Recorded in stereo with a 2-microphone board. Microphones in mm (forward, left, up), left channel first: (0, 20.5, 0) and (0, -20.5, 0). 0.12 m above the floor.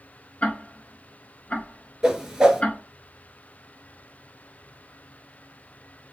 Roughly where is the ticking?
Left.